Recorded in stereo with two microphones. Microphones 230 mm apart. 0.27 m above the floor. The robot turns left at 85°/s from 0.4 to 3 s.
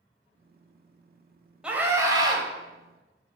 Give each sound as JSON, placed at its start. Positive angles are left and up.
{"t": 1.6, "sound": "a scream", "side_deg": -5, "distance_m": 1.3}